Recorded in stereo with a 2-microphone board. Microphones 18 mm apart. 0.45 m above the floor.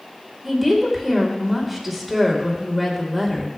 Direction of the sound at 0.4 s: 5° right (ahead or behind).